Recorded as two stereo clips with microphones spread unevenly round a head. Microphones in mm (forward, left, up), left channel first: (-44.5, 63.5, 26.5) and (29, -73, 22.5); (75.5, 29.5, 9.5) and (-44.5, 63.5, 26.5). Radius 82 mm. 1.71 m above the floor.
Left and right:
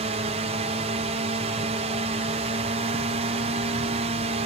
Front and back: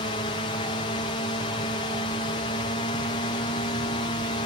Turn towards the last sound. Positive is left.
turn(degrees=-35)